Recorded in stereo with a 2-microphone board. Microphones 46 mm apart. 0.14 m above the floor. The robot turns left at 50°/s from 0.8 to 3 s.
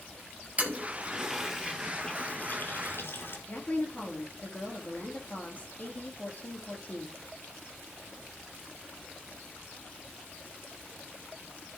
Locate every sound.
0.6 s a toilet flushing: 35° right (ahead or behind), 1.9 m; by 3.4 s 60° left (ahead or behind), 1.9 m
3.5 s a woman speaking: 40° left (ahead or behind), 3 m